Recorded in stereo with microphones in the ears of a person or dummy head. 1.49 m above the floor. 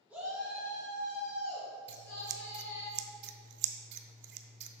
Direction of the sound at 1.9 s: 55° right (ahead or behind).